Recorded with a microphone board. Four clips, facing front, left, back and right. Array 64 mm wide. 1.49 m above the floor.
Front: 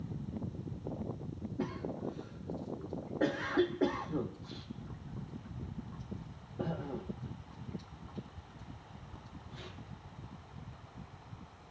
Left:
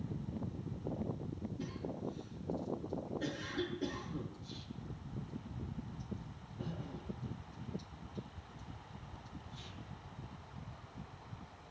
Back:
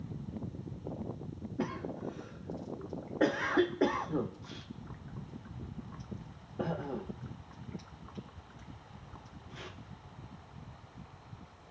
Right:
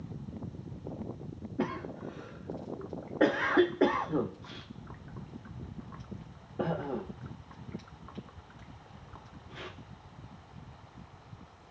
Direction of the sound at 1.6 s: 110° right.